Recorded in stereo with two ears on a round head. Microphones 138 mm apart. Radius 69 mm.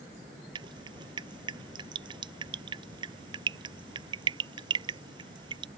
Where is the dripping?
30° right (ahead or behind).